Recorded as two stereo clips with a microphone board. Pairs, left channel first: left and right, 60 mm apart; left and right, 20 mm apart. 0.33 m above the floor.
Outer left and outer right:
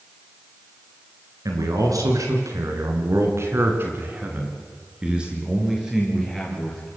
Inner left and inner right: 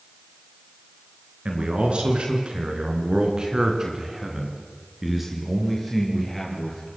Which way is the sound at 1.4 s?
75° right (ahead or behind).